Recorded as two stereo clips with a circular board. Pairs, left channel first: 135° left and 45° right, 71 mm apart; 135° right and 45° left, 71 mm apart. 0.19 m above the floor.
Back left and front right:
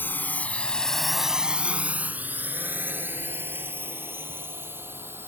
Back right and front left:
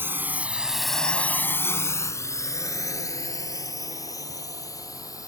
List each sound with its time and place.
0.0 s a drone: 85° left; by 5.3 s 100° right